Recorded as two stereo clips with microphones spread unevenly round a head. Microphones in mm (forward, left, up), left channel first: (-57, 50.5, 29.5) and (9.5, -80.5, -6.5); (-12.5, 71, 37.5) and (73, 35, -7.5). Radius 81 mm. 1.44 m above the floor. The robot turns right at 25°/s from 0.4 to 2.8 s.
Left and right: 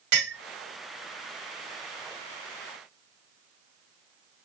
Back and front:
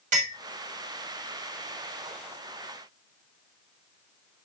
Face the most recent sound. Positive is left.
turn(degrees=20)